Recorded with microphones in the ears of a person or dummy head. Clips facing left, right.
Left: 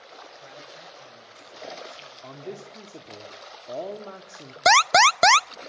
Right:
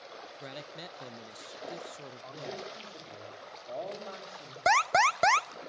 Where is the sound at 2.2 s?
50° left (ahead or behind), 2.5 m.